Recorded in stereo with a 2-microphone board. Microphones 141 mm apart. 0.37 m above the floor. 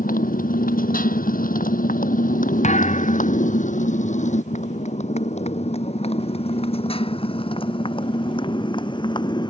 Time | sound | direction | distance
0.0 | a motorcycle | 80° left | ?
2.6 | a thud | 55° left (ahead or behind) | ?